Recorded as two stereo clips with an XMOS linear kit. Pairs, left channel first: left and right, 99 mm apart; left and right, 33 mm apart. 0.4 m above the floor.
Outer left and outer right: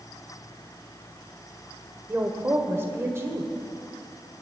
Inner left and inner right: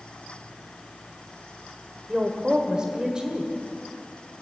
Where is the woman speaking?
25° right (ahead or behind), 1.6 m.